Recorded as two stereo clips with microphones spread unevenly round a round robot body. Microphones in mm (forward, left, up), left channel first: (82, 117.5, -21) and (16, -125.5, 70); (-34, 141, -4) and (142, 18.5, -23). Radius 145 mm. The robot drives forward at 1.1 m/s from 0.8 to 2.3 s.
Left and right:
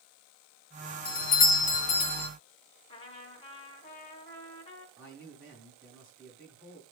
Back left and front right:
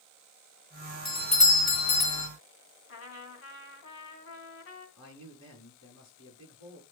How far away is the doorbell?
About 1.9 m.